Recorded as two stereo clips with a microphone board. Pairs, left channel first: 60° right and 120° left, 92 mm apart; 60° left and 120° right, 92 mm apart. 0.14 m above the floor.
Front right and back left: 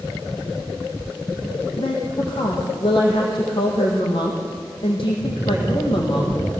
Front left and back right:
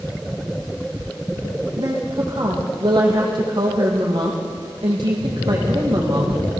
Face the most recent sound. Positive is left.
turn(degrees=-85)